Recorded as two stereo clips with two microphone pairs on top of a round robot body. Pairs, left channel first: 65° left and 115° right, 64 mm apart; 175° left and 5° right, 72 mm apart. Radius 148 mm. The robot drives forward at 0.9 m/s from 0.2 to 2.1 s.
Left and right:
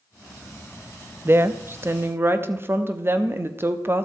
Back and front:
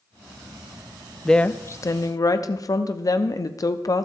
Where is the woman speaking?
110° right, 0.6 m; by 4.0 s 165° right, 1.0 m.